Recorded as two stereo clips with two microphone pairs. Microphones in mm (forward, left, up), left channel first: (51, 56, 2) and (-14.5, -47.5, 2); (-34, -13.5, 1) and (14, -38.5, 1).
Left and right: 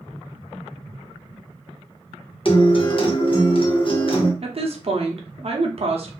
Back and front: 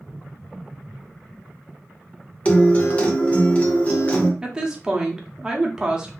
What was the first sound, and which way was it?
A guitar, 90° left.